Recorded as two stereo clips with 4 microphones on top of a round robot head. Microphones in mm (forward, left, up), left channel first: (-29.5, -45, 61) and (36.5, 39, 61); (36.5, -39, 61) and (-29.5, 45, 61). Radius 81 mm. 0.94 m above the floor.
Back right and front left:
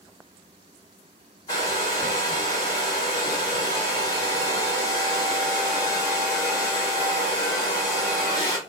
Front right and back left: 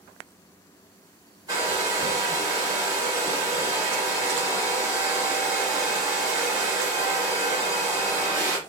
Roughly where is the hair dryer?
Behind.